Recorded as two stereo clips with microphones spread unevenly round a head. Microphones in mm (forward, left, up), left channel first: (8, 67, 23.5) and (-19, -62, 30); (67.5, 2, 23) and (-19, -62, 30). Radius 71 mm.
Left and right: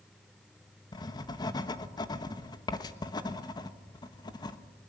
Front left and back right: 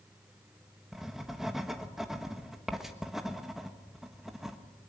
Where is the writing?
125° left, 1.2 m.